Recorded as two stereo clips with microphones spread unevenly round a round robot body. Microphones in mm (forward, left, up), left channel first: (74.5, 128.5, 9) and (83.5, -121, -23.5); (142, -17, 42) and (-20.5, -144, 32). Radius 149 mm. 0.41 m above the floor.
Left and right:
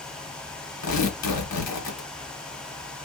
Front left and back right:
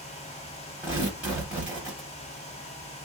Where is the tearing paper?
135° left, 1.0 m.